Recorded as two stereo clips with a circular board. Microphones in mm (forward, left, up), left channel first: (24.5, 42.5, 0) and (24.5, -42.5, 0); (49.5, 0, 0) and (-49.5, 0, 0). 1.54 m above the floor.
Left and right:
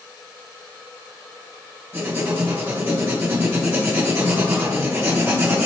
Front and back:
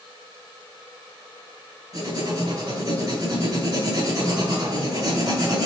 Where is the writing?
150° right, 2.5 m.